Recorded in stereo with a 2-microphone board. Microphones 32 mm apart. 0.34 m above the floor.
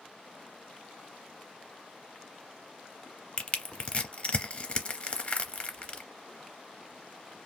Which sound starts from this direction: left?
Crushing, at 3.4 s.